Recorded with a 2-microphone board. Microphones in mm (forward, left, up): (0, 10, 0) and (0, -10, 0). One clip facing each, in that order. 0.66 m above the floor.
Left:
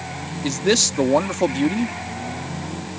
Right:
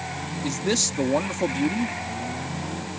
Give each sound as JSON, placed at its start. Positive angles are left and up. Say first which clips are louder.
{"t": 0.4, "sound": "a man speaking", "louder": "left 6 dB", "side_deg": 30}